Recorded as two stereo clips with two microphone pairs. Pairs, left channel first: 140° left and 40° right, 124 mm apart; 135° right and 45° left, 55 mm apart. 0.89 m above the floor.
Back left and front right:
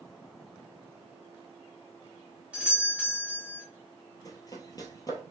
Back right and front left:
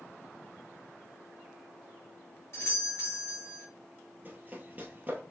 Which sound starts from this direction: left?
Running footsteps, at 4.2 s.